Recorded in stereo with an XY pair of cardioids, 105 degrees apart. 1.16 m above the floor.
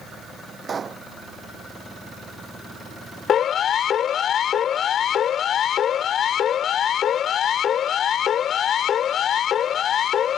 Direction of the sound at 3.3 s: 60° left.